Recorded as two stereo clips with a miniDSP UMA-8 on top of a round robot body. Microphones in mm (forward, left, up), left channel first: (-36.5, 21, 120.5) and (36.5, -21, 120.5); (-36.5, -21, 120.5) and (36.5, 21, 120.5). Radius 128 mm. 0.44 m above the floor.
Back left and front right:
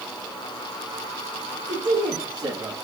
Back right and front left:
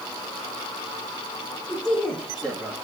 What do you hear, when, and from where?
1.7 s a man speaking: 65° right, 6.5 m